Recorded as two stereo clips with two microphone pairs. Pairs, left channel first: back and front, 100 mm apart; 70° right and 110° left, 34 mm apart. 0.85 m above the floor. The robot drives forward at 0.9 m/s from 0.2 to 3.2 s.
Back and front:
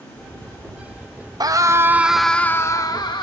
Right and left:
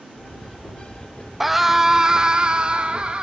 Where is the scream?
25° left, 1.1 m; by 3.2 s 160° left, 1.2 m.